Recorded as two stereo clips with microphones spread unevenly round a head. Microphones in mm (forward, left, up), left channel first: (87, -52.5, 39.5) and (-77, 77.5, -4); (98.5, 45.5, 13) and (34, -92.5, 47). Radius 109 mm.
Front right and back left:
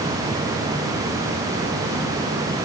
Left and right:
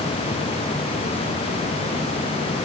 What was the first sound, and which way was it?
Only background noise.